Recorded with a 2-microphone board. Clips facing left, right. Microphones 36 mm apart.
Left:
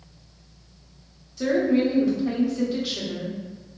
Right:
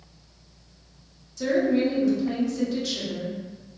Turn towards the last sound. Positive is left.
turn(degrees=15)  # may be behind; listen again after turning